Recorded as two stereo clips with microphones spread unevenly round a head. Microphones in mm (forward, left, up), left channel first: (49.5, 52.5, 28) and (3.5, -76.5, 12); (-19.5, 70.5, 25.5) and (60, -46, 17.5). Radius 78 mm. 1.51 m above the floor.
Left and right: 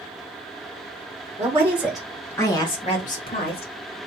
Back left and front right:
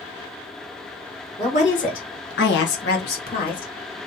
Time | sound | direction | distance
1.4 | a woman speaking | straight behind | 1.8 m